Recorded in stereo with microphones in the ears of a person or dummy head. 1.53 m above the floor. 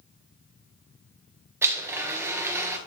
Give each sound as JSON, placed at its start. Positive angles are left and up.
{"t": 1.6, "sound": "a blender", "side_deg": -10, "distance_m": 1.5}